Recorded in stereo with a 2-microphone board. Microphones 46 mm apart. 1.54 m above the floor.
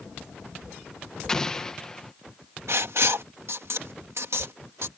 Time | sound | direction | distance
1.3 | an explosion | 15° left (ahead or behind) | ?
2.7 | writing | 75° right (ahead or behind) | ?